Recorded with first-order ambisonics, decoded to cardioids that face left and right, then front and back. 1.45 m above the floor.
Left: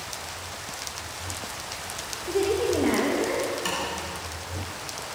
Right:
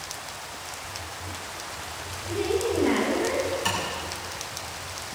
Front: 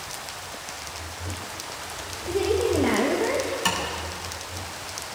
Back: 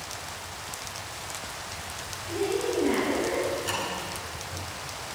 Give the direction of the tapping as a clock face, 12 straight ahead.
12 o'clock.